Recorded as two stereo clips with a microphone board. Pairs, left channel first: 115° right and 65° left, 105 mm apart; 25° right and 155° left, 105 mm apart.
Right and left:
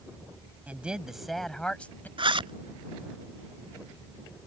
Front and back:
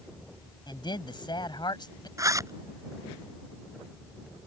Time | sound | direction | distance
0.7 | a man speaking | 5° right | ?
2.2 | a zipper | 100° left | ?